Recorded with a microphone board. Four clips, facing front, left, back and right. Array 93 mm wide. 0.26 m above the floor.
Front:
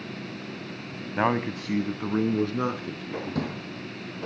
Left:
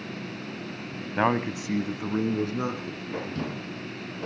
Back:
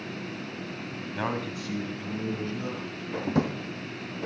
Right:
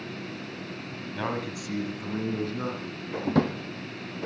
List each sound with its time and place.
1.2 s a man speaking: 55° left, 1.7 m; by 3.1 s 10° left, 4 m
3.2 s a drawer: 110° right, 3.5 m